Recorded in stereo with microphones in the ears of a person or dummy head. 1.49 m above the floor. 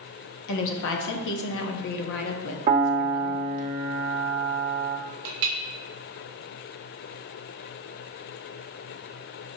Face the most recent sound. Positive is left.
turn(degrees=-55)  # may be behind; listen again after turning